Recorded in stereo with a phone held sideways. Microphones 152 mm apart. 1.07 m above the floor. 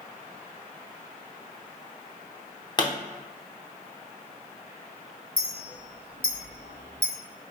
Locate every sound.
2.8 s a pop: 30° left (ahead or behind), 0.8 m
5.4 s a clink: 70° left (ahead or behind), 1.3 m